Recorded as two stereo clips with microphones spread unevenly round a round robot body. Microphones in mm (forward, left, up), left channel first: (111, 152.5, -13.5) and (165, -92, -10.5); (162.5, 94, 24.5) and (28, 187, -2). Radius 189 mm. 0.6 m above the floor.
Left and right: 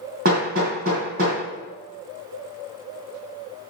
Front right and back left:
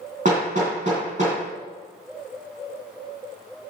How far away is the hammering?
About 2.5 m.